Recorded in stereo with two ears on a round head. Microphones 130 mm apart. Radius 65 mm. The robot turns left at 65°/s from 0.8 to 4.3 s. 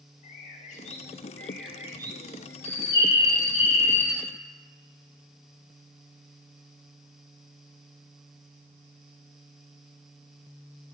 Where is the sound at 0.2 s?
50° left, 0.7 m; by 2.5 s 60° right, 0.7 m.